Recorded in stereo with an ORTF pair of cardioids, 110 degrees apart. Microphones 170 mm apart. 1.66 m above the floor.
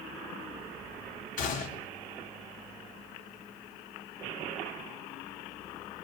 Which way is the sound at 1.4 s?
50° left.